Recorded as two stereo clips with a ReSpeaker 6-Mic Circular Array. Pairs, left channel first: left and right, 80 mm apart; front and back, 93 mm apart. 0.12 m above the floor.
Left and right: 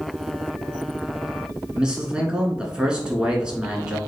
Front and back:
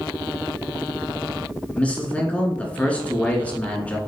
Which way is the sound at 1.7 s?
40° right.